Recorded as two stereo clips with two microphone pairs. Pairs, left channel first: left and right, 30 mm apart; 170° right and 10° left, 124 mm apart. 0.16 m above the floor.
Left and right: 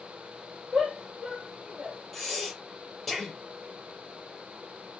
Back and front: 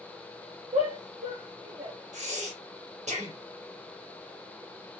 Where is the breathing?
5° left, 4.5 m.